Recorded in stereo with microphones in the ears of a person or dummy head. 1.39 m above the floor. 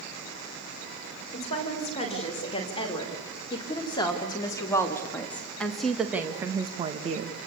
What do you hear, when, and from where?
1.3 s a woman speaking: 35° left (ahead or behind), 6 m; by 7.4 s 50° right (ahead or behind), 1.6 m